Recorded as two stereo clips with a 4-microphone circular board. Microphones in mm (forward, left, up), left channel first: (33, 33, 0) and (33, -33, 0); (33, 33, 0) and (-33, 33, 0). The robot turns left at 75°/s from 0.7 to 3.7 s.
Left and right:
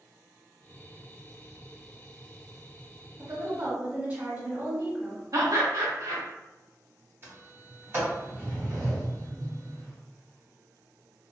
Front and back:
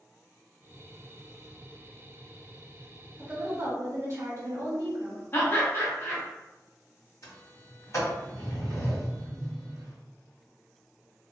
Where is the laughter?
55° right, 1.4 m.